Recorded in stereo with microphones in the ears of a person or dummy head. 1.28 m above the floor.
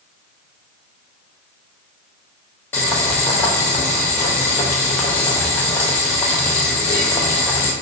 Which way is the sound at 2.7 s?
10° left (ahead or behind).